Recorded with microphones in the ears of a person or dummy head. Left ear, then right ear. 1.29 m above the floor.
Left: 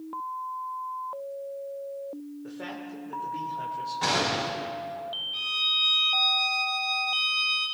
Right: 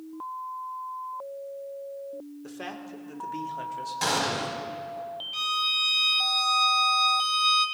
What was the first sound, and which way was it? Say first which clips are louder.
A man speaking: left 1 dB; 75° right (ahead or behind).